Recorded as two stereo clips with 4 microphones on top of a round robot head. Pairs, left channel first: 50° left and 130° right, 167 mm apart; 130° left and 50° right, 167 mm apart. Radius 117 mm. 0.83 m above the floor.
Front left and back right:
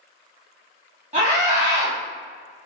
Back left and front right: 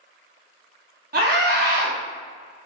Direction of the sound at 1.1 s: 85° right.